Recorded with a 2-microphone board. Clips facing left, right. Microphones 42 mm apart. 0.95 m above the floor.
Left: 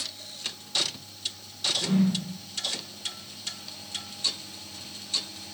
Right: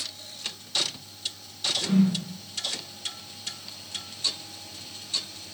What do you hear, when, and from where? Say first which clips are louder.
1.8 s a whoosh: right 2 dB; 15° right (ahead or behind), 0.9 m